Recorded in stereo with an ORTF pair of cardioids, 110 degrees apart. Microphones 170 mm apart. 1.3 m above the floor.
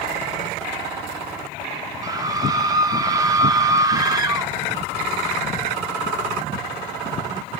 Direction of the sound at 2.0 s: 20° right.